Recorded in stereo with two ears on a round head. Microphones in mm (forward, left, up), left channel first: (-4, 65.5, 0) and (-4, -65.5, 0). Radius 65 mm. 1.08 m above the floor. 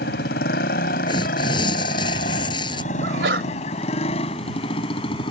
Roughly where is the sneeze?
Right.